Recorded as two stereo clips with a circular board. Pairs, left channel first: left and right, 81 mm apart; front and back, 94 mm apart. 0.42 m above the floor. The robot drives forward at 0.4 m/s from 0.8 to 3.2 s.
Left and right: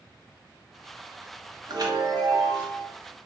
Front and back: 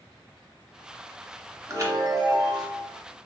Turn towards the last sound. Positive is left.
turn(degrees=-150)